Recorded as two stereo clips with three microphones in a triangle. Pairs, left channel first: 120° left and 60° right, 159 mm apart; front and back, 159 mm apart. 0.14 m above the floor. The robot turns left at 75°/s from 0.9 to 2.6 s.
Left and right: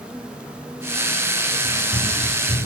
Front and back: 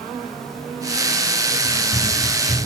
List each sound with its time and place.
1.6 s running footsteps: 175° left, 5.5 m; by 2.7 s 110° left, 5 m